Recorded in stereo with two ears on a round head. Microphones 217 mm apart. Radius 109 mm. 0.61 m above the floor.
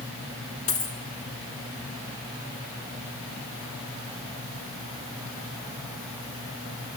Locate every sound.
0.7 s a dropped coin: 60° left (ahead or behind), 3 m